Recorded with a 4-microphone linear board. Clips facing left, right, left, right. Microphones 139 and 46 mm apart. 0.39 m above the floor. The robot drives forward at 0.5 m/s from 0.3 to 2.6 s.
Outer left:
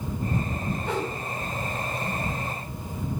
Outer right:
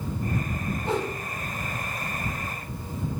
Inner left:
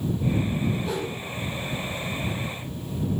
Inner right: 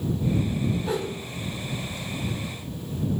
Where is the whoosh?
35° right (ahead or behind), 1.1 m; by 1.1 s 30° right (ahead or behind), 1.2 m.